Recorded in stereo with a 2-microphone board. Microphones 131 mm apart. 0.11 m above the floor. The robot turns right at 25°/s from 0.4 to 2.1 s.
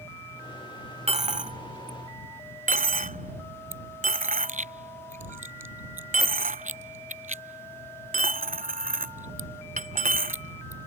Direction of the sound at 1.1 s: 50° right (ahead or behind).